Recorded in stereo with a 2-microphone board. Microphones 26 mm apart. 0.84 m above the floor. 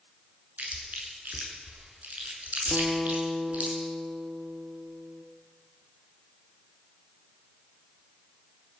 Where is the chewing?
80° right, 7 m.